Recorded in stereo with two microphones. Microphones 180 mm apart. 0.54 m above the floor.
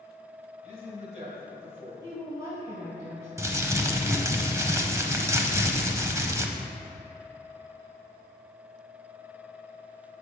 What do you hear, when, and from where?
0.6 s a man speaking: 40° right (ahead or behind), 3 m
2.0 s a woman speaking: 20° right (ahead or behind), 2.0 m
3.4 s crumpling: 15° right (ahead or behind), 0.7 m